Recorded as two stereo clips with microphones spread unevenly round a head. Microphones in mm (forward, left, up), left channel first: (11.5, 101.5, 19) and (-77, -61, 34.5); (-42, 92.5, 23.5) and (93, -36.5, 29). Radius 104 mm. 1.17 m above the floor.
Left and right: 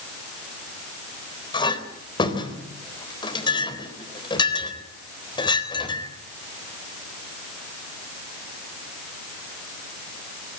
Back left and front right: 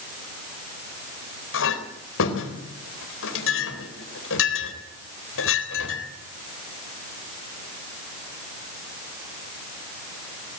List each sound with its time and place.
1.5 s a clink: 130° left, 4 m